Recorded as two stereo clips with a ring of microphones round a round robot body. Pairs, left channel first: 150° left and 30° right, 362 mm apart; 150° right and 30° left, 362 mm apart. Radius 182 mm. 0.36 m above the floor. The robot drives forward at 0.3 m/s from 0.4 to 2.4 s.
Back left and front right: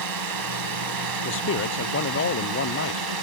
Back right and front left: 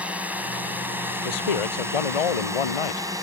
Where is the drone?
55° right; by 3.2 s 50° right.